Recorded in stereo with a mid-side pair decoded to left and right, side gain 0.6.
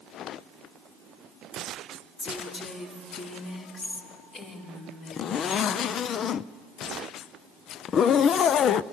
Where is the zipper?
45° left, 0.6 m.